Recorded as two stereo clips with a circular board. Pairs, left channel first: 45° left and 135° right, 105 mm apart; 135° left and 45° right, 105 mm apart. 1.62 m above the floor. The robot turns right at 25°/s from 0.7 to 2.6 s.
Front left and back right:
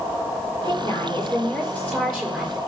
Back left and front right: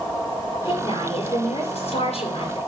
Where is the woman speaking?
95° left, 6 m; by 2.6 s 140° left, 6 m.